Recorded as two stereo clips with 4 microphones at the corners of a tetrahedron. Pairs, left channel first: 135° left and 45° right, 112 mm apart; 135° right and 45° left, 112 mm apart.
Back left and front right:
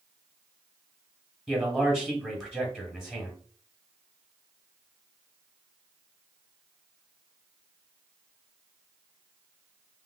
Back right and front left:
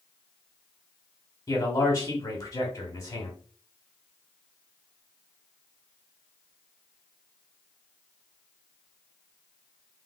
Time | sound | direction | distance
1.5 | a man speaking | 125° right | 1.2 m